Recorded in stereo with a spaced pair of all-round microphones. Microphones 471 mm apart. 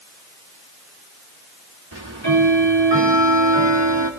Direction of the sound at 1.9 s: 55° right (ahead or behind).